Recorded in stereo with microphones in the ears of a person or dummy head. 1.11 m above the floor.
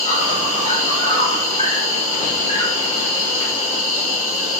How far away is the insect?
About 1.4 m.